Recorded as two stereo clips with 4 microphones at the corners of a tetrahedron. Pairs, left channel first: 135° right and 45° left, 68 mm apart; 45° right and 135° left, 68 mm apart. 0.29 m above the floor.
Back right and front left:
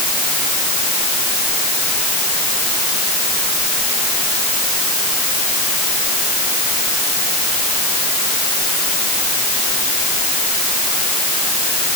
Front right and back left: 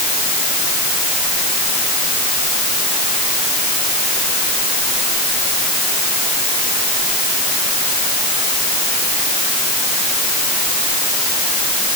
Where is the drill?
I don't hear a drill.